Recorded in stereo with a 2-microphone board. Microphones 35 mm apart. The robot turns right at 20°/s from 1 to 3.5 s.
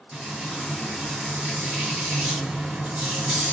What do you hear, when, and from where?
0.1 s frying: 165° right, 2.5 m; by 3.5 s 115° right, 2.5 m